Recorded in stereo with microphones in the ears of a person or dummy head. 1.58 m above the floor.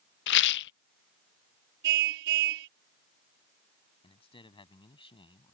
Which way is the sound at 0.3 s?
60° left (ahead or behind).